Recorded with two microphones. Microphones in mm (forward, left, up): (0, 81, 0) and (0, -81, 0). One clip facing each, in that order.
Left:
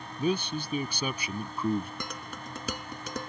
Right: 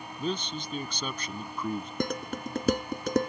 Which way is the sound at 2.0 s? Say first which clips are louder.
Right 9 dB; 50° right (ahead or behind).